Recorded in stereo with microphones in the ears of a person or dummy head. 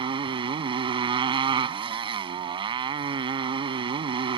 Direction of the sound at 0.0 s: 30° right (ahead or behind).